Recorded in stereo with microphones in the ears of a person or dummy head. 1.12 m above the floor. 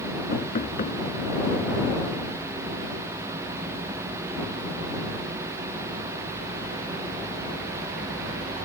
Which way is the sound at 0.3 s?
40° left (ahead or behind).